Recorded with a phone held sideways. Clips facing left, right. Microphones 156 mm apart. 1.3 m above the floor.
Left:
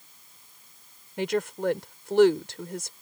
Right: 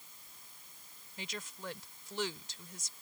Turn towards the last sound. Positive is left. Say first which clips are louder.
# left 19 dB
turn(degrees=70)  # may be behind; listen again after turning